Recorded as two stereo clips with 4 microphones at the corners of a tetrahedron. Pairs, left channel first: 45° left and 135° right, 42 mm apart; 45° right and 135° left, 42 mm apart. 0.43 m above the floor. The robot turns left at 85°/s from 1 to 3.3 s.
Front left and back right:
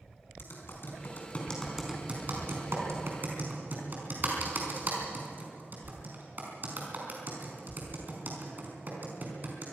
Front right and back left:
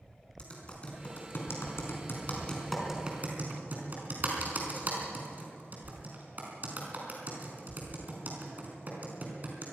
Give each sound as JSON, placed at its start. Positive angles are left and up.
{"t": 0.4, "sound": "typing on a keyboard", "azimuth_deg": 20, "distance_m": 4.5}